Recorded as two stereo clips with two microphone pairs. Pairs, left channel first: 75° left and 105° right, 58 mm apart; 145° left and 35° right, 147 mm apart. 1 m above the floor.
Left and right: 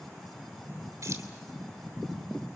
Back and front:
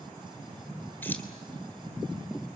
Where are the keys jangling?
135° right, 3 m.